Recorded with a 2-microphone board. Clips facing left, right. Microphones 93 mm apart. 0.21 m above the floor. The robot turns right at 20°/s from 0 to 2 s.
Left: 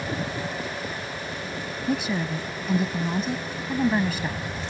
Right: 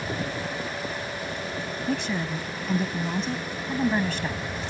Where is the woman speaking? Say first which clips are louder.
Left 3 dB; 5° left (ahead or behind).